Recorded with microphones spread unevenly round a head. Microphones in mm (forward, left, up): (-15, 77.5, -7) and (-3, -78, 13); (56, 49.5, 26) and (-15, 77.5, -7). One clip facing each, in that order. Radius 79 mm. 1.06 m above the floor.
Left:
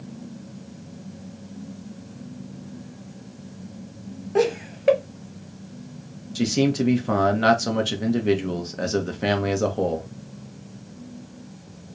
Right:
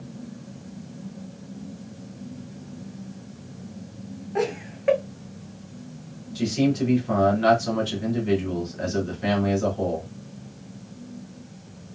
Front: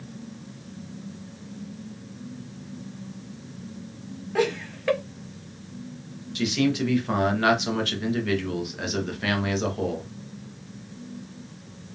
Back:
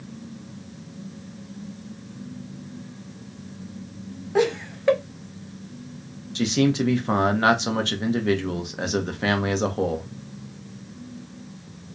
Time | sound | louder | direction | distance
4.3 | laughter | left 5 dB, back 3 dB | 120° left | 0.8 m
6.3 | a man speaking | left 1 dB, back 3 dB | 110° left | 0.7 m